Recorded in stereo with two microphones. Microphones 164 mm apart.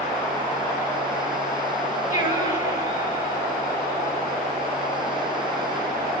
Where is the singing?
55° left (ahead or behind), 2.5 m.